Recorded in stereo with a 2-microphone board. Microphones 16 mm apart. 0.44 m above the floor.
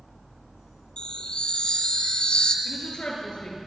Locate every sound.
1.0 s a chime: 70° left (ahead or behind), 2 m
2.6 s a woman speaking: 80° left, 8 m